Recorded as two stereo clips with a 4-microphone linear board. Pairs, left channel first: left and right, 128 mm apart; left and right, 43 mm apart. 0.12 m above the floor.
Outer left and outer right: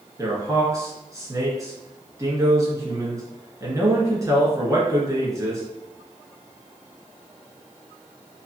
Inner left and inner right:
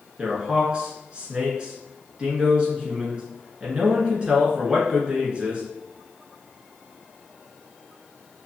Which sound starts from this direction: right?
A man speaking, at 0.2 s.